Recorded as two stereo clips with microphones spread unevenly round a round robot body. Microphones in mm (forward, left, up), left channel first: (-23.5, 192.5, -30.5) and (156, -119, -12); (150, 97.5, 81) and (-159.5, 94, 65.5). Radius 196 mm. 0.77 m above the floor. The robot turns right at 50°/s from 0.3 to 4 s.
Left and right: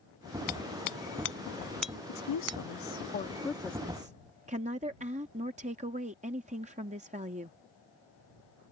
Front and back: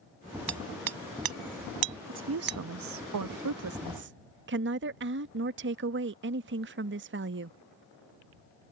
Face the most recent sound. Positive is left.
turn(degrees=-135)